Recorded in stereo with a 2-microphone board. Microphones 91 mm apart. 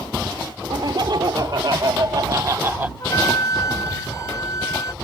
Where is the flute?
40° left (ahead or behind).